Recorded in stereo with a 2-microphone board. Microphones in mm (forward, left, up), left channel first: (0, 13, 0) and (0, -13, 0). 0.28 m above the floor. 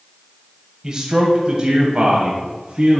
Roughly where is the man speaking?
Right.